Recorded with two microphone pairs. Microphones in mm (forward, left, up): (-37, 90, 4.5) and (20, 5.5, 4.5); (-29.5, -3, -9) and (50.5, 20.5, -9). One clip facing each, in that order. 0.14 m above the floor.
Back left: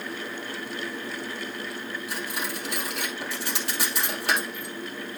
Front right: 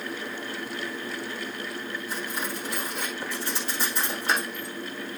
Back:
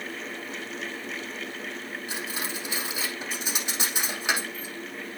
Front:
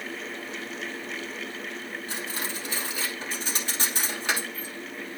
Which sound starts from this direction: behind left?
Cutlery clinking, at 2.1 s.